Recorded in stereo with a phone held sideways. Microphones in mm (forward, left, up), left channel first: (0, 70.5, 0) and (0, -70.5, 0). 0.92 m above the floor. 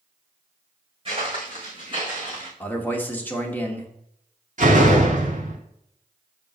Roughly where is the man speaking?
Centre.